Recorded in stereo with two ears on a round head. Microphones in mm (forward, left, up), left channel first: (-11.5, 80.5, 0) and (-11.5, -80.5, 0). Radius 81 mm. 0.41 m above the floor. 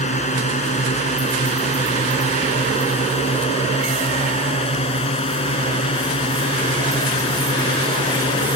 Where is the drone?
40° left (ahead or behind); by 8.6 s 30° left (ahead or behind).